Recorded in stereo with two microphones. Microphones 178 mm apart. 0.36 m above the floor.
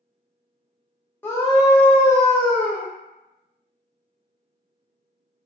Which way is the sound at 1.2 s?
10° left (ahead or behind).